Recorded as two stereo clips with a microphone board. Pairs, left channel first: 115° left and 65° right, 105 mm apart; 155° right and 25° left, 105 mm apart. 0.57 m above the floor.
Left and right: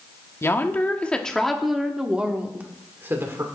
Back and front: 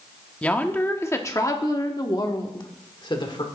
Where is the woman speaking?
140° left, 1.3 m; by 3.5 s 130° right, 2 m.